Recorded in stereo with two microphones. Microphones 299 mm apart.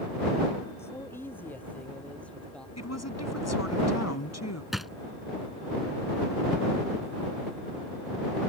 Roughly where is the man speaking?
Centre.